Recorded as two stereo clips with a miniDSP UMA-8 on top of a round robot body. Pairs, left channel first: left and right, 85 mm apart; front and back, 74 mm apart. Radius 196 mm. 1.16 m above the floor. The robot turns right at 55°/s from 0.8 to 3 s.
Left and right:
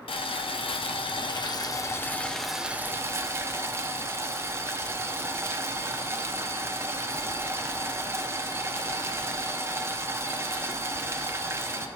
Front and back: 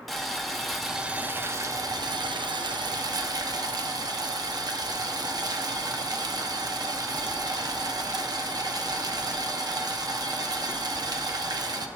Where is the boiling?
90° left, 0.7 m; by 11.9 s 150° right, 0.7 m.